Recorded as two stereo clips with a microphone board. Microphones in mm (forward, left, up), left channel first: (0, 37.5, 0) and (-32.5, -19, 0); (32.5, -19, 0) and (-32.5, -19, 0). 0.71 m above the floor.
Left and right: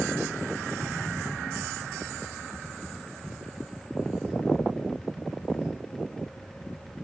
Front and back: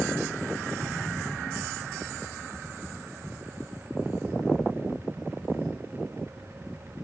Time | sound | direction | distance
0.8 | an explosion | 135° left | 1.7 m